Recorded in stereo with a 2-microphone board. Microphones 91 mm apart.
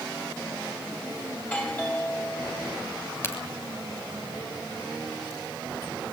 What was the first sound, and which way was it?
A doorbell, 20° left (ahead or behind).